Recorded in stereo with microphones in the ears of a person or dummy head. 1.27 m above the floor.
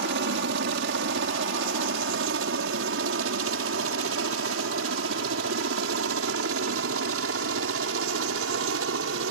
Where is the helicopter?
60° right (ahead or behind); by 9.3 s 70° right (ahead or behind).